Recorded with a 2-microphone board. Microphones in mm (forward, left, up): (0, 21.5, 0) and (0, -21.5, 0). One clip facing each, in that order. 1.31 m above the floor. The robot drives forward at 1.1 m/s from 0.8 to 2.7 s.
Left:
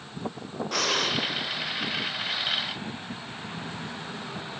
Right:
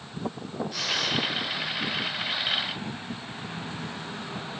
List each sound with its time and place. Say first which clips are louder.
0.7 s breathing: left 3 dB; 65° left (ahead or behind), 0.6 m; by 1.2 s 45° left (ahead or behind), 0.7 m